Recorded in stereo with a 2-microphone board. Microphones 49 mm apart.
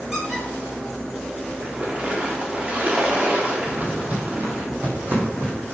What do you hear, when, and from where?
0.1 s a squeak: 10° right (ahead or behind), 3.5 m
1.6 s a splash: 30° right (ahead or behind), 1.2 m
3.7 s footsteps: 30° right (ahead or behind), 1.1 m; by 5.6 s 50° right (ahead or behind), 2 m